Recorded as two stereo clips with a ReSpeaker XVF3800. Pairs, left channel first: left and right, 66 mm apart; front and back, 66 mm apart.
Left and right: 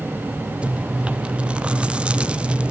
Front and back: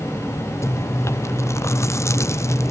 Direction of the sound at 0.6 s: 20° right.